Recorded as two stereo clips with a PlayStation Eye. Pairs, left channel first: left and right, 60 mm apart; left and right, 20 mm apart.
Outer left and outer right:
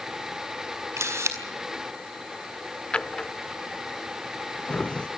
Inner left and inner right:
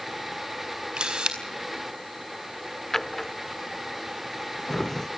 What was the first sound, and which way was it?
A camera shutter, 50° right (ahead or behind).